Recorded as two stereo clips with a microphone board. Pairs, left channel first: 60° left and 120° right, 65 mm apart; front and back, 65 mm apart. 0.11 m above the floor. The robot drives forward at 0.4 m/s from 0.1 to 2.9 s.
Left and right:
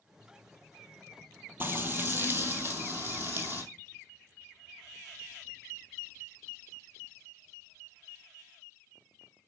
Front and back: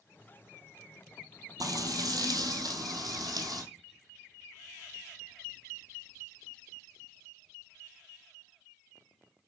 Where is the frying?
175° right, 1.3 m.